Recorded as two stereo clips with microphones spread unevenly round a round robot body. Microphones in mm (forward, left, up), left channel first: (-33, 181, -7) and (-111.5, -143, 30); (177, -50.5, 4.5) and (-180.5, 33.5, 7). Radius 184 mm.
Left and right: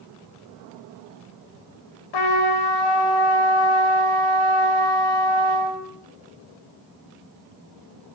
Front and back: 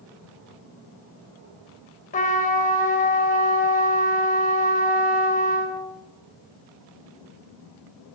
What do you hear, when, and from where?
2.1 s a trumpet: 55° left, 3.5 m